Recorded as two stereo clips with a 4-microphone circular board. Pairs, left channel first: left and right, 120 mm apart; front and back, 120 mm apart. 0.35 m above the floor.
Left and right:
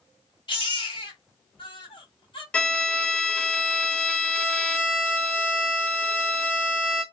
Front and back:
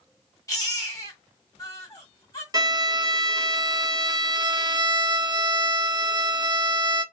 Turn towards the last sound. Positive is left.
turn(degrees=165)